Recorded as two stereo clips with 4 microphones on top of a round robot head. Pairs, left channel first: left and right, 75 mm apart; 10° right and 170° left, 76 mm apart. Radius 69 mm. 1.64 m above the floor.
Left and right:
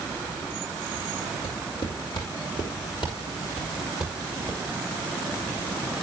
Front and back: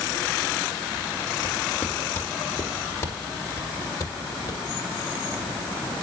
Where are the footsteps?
60° left, 4.5 m; by 4.6 s 30° left, 3.5 m.